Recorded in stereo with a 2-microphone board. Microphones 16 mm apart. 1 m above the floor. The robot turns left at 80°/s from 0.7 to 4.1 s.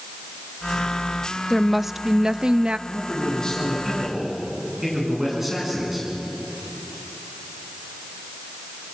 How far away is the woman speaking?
About 0.7 m.